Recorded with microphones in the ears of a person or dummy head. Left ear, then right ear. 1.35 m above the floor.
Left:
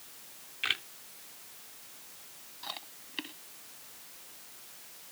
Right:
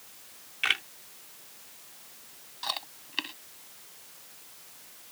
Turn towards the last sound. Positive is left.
turn(degrees=-50)  # may be behind; listen again after turning